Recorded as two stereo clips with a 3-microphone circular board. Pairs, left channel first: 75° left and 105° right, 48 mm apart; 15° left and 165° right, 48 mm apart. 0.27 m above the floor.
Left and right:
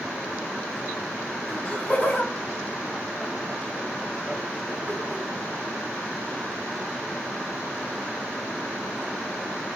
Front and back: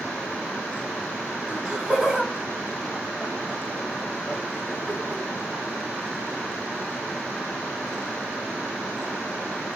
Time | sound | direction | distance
1.5 | laughter | 125° left | 1.7 m